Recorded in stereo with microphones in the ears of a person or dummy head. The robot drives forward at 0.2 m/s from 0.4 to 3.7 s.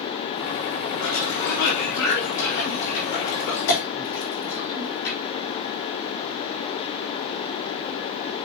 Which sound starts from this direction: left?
A cough, at 1.0 s.